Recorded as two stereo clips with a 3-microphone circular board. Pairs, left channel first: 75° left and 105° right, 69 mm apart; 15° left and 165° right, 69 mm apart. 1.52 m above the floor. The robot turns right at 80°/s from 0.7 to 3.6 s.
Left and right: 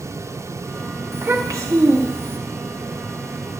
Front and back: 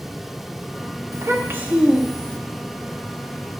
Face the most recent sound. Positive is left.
turn(degrees=45)